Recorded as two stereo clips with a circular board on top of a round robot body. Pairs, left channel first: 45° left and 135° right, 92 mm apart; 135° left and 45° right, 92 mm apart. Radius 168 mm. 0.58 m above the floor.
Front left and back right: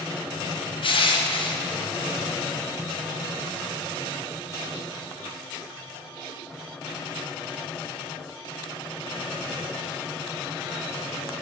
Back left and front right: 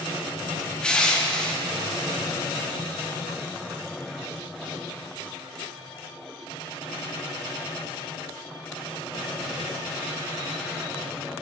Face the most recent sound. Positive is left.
turn(degrees=55)